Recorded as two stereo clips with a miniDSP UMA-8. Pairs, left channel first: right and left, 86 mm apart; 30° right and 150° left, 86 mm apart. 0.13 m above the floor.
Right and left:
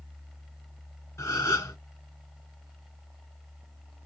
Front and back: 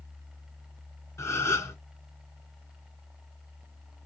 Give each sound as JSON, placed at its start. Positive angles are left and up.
{"t": 1.2, "sound": "a gasp", "azimuth_deg": -60, "distance_m": 1.9}